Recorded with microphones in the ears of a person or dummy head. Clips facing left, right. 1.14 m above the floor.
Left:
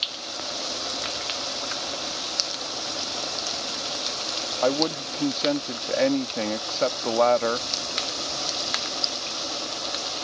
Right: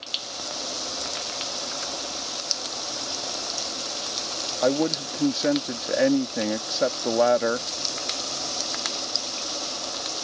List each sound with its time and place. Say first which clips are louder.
4.6 s a man speaking: right 1 dB; 10° right (ahead or behind)